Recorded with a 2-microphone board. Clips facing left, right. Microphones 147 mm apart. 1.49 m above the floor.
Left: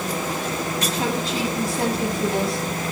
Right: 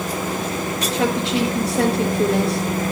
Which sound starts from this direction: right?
A woman speaking, at 0.9 s.